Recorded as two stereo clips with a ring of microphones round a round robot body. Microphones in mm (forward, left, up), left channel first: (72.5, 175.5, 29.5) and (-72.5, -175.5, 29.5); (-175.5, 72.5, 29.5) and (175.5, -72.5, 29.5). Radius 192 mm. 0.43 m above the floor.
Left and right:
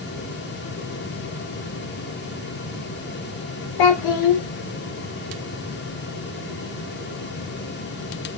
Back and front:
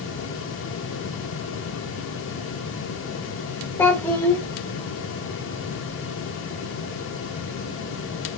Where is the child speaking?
75° left, 0.6 m.